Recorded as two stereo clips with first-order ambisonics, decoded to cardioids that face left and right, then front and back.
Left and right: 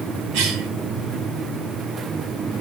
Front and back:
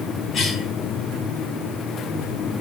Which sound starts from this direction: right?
A cough, at 0.3 s.